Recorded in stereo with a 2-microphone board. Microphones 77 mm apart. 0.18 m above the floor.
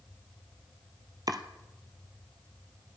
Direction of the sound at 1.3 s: 55° right (ahead or behind).